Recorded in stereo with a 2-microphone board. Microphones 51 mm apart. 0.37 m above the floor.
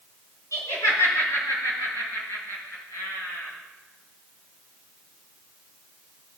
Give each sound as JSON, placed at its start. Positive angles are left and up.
{"t": 0.5, "sound": "laughter", "side_deg": 75, "distance_m": 5.0}